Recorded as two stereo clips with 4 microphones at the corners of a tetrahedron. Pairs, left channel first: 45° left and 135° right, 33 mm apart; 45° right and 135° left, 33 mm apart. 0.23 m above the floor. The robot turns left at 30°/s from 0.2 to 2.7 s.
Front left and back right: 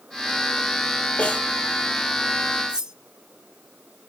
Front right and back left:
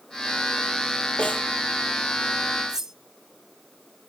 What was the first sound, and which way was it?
A snare drum, 5° right.